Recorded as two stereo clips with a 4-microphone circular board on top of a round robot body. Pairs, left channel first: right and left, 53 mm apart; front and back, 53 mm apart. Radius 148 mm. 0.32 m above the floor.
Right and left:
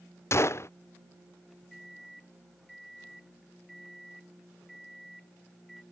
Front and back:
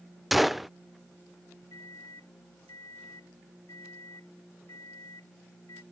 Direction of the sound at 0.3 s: 90° right.